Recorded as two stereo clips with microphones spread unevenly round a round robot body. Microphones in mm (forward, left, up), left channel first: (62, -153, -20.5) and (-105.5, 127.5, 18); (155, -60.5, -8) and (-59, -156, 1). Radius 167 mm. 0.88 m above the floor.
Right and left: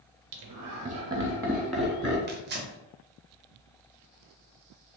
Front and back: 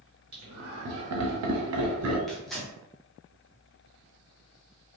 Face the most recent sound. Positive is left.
turn(degrees=105)